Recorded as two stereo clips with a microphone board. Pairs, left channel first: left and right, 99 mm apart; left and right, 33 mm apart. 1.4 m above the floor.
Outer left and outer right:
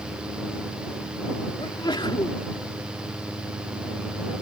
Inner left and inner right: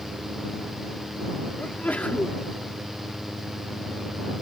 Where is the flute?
I don't hear a flute.